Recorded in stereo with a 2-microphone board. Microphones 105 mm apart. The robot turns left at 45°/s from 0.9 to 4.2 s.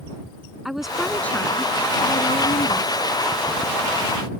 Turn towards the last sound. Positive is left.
turn(degrees=35)